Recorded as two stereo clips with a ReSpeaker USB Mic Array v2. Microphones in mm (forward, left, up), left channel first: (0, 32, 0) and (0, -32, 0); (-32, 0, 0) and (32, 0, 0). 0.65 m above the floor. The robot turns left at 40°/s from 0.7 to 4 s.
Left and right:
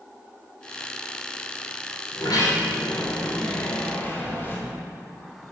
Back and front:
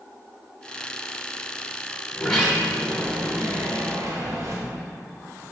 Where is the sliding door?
110° left, 3 m; by 4.6 s 35° left, 3 m.